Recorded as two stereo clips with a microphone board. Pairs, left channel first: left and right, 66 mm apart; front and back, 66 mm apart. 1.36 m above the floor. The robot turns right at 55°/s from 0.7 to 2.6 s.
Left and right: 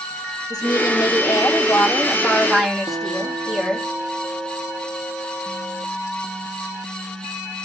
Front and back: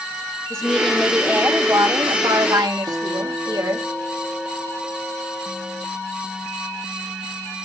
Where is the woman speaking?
80° left, 2.5 m; by 3.9 s 175° right, 2.5 m.